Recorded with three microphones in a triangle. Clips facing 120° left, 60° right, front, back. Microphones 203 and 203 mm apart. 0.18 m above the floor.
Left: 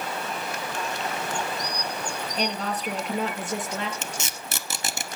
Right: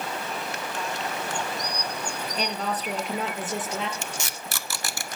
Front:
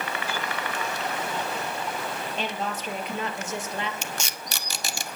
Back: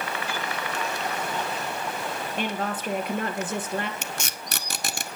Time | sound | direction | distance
2.4 | a woman speaking | 150° right | 3 m
4.0 | tape being pulled | 175° right | 1.1 m